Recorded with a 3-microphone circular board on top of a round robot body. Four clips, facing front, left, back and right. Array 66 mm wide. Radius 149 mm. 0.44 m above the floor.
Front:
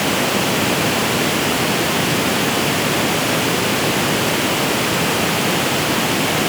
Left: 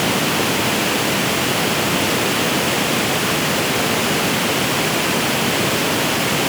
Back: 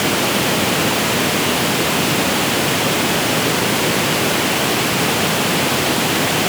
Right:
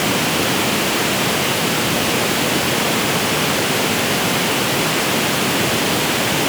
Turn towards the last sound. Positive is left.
No sound to turn to.